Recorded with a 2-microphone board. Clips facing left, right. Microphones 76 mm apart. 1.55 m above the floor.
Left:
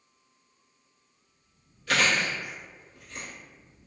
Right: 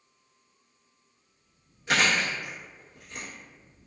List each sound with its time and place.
1.9 s chewing: 20° right (ahead or behind), 1.1 m